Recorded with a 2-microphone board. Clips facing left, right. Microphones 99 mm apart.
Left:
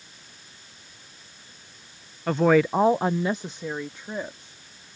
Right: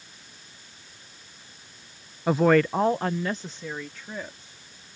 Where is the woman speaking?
10° right (ahead or behind); by 4.5 s 20° left (ahead or behind).